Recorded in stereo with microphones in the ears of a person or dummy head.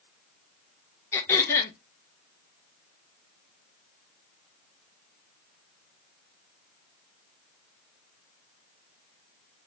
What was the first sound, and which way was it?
Throat clearing, 15° left (ahead or behind).